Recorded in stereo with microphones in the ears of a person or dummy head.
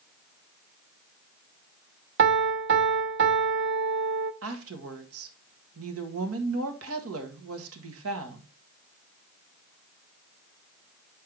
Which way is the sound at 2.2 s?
60° right (ahead or behind).